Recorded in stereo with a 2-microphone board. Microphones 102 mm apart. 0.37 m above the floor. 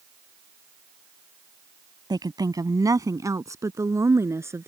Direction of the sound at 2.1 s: 45° right (ahead or behind).